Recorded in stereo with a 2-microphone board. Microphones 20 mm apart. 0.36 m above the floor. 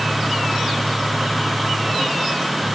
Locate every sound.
Only background noise.